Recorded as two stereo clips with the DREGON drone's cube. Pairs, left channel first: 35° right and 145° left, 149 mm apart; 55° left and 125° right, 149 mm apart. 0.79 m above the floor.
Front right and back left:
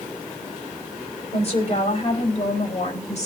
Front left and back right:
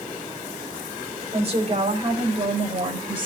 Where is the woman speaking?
75° right, 4.5 m; by 3.3 s 70° right, 3.5 m.